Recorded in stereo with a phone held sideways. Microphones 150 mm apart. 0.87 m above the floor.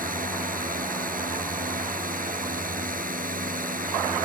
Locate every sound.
0.0 s a drone: 70° right (ahead or behind)